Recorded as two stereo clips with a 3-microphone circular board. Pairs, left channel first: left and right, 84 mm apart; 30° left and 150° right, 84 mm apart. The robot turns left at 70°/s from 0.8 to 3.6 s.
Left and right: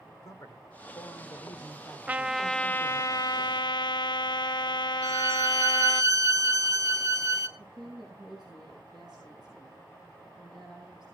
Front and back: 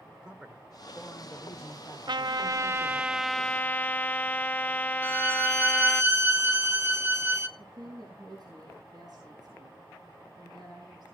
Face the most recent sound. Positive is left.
turn(degrees=-110)